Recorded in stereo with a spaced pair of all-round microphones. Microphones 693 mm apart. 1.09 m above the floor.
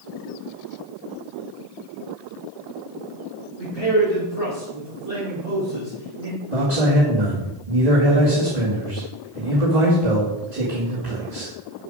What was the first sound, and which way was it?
A man speaking, 60° left (ahead or behind).